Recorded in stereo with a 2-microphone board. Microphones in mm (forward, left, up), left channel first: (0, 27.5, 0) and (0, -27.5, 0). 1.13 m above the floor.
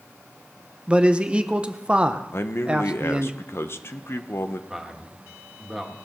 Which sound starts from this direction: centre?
A man speaking, at 4.7 s.